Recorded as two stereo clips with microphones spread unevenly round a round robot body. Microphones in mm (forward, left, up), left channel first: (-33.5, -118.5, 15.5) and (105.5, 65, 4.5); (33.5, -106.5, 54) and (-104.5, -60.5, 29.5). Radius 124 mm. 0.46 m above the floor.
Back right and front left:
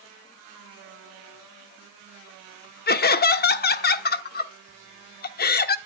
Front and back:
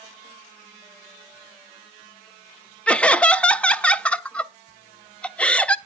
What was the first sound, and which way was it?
Laughter, 110° right.